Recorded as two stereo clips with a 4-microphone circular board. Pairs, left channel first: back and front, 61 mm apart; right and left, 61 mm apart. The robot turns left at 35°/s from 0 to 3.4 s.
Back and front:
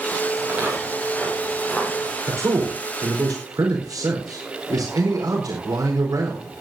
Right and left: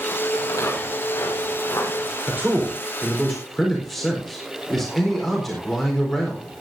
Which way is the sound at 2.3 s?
35° left.